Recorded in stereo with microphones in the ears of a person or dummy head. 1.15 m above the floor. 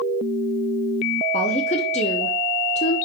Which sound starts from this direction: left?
A woman speaking, at 1.3 s.